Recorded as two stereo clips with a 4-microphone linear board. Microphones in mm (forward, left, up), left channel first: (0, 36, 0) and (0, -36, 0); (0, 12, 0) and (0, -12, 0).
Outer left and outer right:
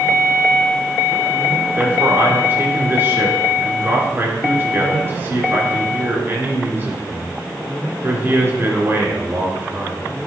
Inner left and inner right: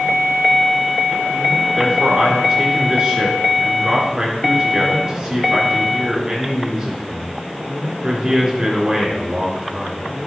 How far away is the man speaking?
About 3.5 m.